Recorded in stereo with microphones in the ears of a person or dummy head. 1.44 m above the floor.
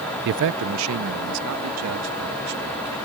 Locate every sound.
0.2 s a man speaking: 60° right (ahead or behind); by 3.0 s 85° right